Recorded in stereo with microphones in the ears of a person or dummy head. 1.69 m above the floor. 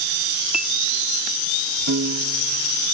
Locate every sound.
0.5 s a clink: centre (ahead or behind)
1.9 s a piano: 60° right (ahead or behind)